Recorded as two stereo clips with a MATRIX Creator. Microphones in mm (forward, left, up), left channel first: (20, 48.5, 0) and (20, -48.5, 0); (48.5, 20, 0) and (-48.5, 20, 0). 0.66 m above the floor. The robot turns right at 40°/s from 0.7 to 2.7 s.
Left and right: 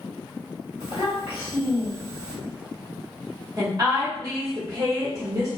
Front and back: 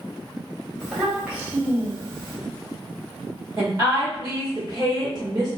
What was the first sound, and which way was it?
A child speaking, 80° left.